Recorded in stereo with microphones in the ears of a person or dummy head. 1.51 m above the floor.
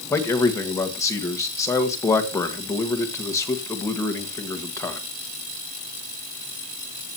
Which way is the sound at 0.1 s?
15° left (ahead or behind).